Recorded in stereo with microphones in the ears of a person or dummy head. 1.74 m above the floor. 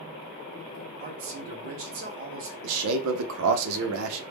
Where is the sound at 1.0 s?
45° right (ahead or behind), 0.6 m.